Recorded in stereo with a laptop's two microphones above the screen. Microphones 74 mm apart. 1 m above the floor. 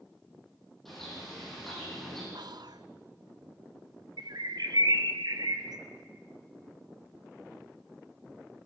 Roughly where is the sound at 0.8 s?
Centre.